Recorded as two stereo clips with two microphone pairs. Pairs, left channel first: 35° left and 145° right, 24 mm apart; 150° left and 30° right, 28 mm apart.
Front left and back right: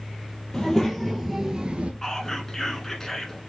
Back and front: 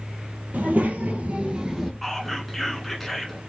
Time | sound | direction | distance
0.5 | a child speaking | 30° right | 2.0 m
2.0 | whispering | 70° left | 1.1 m